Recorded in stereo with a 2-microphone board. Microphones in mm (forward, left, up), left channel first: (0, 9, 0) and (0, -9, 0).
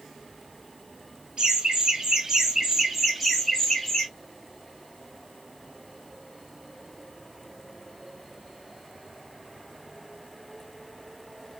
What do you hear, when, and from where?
1.4 s laughter: 50° right (ahead or behind), 1.4 m; by 4.1 s 30° left (ahead or behind), 1.0 m